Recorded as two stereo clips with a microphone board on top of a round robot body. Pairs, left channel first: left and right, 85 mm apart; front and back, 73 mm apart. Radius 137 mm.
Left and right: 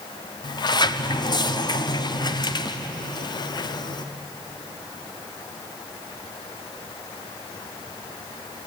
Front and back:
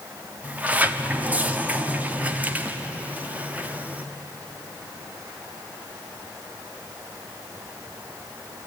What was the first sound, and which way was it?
A sliding door, 115° left.